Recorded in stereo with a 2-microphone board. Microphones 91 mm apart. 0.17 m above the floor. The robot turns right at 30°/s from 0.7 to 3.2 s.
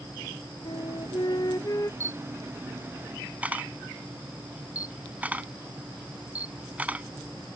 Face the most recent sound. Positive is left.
turn(degrees=-20)  # may be behind; listen again after turning